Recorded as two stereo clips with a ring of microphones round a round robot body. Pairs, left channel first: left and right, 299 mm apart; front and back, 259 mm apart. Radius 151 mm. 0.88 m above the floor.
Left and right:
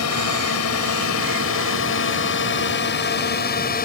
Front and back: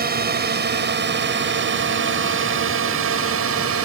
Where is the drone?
125° left; by 3.9 s 150° left.